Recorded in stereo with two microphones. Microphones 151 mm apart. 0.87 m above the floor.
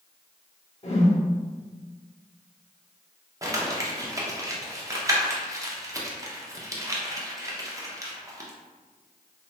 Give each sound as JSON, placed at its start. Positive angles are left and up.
{"t": 0.8, "sound": "a whoosh", "side_deg": 45, "distance_m": 0.6}
{"t": 3.4, "sound": "crumpling", "side_deg": -20, "distance_m": 0.5}